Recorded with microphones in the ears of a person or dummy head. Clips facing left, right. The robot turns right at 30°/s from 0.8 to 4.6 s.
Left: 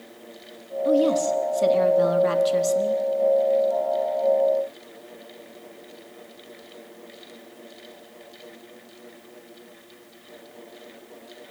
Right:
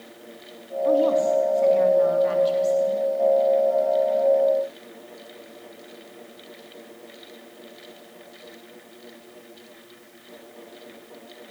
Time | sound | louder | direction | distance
0.8 | a woman speaking | right 1 dB | 30° left | 4 m